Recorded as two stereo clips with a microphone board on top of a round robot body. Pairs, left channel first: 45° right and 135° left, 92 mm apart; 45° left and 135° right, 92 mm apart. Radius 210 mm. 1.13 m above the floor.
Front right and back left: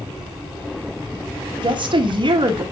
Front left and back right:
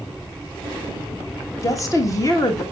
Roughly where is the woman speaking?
Left.